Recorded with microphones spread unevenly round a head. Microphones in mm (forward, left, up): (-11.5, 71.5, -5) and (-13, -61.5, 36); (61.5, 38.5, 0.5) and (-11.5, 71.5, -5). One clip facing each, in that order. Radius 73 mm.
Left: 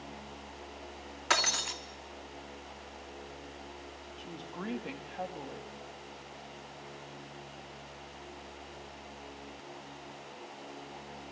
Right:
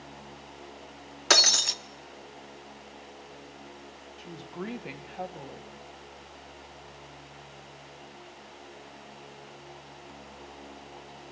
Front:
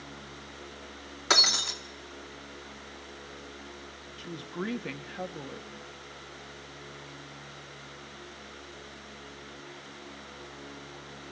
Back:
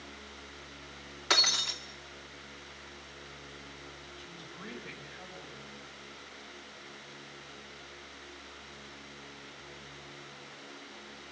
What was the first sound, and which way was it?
Breaking glass, 90° right.